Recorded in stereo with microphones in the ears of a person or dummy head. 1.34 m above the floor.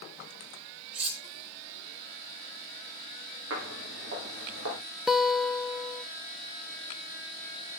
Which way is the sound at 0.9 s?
35° right (ahead or behind).